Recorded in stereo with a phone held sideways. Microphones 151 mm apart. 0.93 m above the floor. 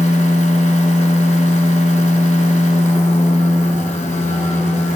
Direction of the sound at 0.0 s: 50° left (ahead or behind).